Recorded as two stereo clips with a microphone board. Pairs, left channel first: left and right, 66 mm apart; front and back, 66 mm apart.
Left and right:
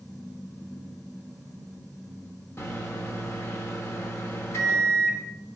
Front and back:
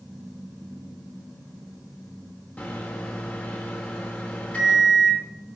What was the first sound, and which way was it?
A microwave, 60° left.